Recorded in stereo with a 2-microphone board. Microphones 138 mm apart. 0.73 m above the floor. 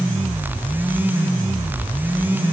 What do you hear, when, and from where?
Only background noise.